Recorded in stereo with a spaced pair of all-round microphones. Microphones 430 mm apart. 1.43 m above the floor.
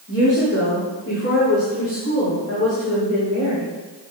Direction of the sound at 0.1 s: 35° left (ahead or behind).